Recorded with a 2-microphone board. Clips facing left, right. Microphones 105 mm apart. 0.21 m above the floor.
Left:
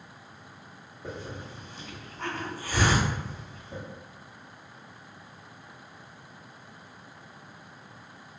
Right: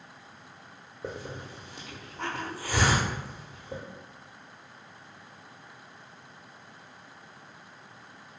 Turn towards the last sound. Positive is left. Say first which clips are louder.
# right 1 dB
turn(degrees=-85)